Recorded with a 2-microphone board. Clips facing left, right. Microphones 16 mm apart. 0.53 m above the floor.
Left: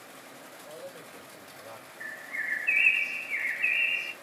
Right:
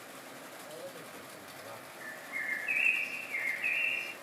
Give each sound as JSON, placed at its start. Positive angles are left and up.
{"t": 0.6, "sound": "a man speaking", "side_deg": 40, "distance_m": 2.5}
{"t": 2.0, "sound": "a bird", "side_deg": 50, "distance_m": 2.5}